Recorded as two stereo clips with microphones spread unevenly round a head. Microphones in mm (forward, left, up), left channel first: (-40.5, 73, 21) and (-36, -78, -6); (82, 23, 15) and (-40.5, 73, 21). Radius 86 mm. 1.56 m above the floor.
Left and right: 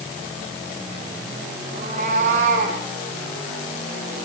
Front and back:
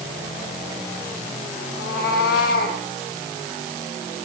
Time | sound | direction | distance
1.7 | a cat meowing | 30° right | 5 m